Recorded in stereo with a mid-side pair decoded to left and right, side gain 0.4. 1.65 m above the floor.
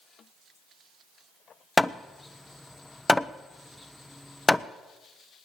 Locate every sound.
1.8 s hammering: 15° left, 0.8 m